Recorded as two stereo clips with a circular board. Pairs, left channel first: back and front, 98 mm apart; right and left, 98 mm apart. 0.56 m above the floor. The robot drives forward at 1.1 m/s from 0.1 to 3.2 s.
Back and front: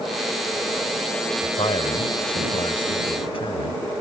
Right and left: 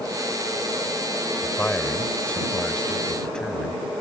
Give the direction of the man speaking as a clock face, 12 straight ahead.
5 o'clock.